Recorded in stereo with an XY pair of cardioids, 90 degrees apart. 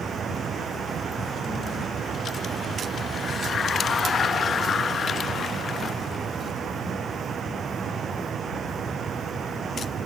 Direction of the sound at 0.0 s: 60° right.